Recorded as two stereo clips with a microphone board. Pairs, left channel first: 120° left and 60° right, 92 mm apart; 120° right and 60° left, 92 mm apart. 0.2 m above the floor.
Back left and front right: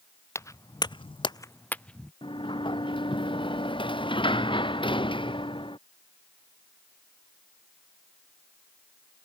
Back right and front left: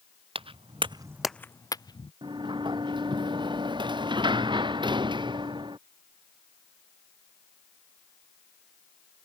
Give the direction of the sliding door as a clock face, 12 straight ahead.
9 o'clock.